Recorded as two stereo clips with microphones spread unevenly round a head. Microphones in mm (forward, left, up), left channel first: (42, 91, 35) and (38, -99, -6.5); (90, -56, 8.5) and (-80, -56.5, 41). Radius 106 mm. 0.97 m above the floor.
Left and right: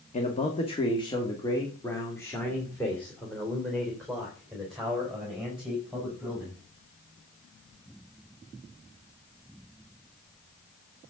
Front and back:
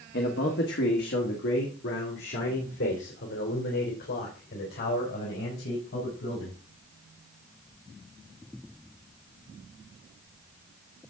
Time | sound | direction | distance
0.1 | a man speaking | 35° left | 1.6 m